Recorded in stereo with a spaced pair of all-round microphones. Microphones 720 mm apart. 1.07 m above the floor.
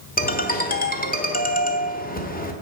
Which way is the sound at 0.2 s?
10° left (ahead or behind).